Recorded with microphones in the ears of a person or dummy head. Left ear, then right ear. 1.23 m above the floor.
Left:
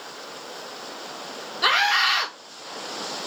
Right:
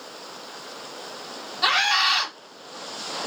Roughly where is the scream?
Centre.